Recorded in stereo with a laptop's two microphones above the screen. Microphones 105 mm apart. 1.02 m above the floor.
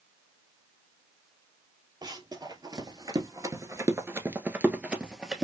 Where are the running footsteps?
40° right (ahead or behind), 1.5 m; by 5.4 s 5° right (ahead or behind), 1.3 m.